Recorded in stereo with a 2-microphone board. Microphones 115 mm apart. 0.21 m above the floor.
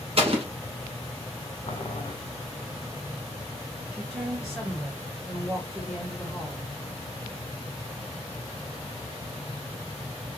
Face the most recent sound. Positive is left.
turn(degrees=-5)  # may be behind; listen again after turning